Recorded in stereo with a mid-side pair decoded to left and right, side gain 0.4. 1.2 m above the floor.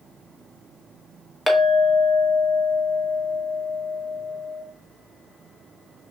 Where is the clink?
20° left, 1.2 m.